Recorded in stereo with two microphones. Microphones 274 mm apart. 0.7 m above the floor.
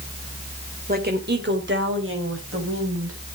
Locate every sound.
0.9 s a woman speaking: 35° right (ahead or behind), 2.5 m; by 3.2 s 50° right (ahead or behind), 5 m